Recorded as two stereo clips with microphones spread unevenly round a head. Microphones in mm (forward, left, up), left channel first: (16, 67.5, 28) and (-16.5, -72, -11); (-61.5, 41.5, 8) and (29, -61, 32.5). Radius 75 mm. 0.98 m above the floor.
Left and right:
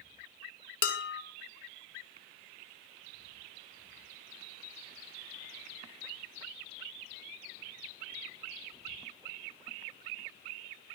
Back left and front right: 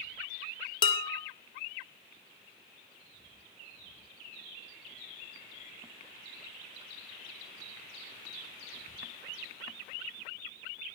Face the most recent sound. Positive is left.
turn(degrees=70)